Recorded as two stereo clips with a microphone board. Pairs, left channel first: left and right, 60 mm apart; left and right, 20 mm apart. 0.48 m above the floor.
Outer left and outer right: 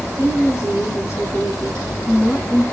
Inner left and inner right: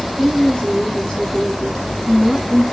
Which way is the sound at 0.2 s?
60° left (ahead or behind).